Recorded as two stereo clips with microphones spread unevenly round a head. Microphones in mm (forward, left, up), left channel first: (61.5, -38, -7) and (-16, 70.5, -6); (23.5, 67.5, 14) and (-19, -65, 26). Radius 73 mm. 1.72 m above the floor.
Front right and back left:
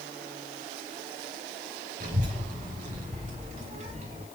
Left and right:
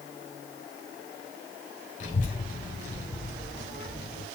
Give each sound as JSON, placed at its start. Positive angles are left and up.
{"t": 2.0, "sound": "a child speaking", "azimuth_deg": 110, "distance_m": 5.5}